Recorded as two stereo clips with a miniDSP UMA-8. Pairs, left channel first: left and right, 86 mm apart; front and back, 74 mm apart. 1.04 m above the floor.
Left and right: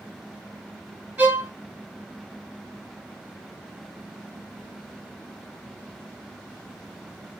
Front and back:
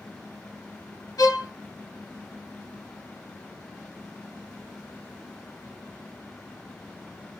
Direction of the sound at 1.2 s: 25° right.